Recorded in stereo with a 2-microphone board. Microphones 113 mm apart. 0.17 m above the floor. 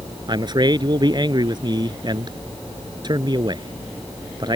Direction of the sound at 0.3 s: 40° right (ahead or behind).